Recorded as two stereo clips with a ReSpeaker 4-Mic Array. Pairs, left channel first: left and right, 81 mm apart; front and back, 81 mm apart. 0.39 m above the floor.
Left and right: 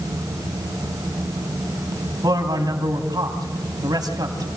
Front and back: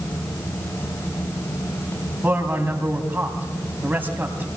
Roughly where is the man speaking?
Behind right.